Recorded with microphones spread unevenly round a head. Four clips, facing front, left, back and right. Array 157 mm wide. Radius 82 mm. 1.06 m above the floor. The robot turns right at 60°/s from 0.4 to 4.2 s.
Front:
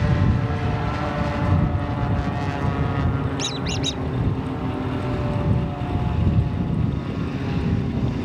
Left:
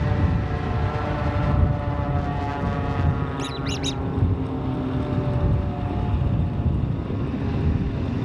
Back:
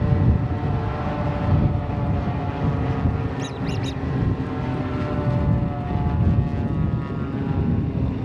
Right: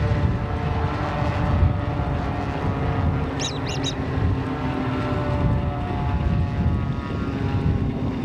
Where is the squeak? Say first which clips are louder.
Right 1 dB, even; 25° left; by 4.0 s 65° left.